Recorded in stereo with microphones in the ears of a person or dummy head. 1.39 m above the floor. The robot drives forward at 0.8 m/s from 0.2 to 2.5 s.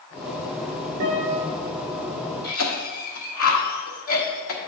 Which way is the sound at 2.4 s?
80° left.